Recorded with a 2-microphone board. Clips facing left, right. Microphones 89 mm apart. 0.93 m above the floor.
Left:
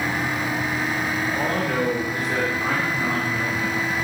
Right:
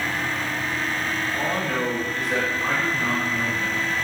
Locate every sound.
1.3 s a man speaking: 40° left (ahead or behind), 4 m; by 3.9 s 5° right (ahead or behind), 3 m